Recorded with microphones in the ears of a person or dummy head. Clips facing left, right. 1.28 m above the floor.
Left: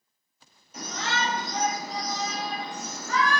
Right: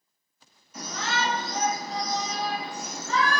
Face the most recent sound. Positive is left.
turn(degrees=-40)  # may be behind; listen again after turning